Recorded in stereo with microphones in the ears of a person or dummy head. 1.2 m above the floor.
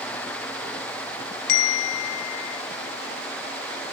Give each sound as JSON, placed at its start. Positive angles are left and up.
{"t": 1.5, "sound": "a bell", "side_deg": 55, "distance_m": 1.1}